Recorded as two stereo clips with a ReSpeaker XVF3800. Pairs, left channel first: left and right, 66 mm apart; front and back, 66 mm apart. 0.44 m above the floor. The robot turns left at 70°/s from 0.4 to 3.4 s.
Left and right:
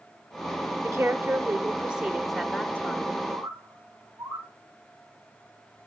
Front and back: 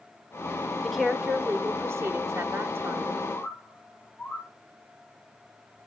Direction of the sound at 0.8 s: 80° right.